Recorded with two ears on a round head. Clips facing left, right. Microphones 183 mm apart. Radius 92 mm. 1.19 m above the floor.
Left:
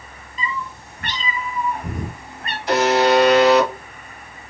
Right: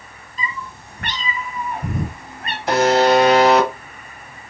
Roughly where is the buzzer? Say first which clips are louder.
Right 1 dB; right.